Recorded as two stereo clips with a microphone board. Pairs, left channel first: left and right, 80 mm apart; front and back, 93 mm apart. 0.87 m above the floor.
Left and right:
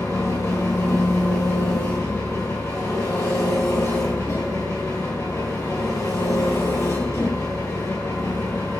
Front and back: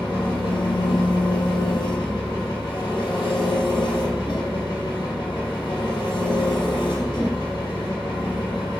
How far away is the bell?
I don't hear a bell.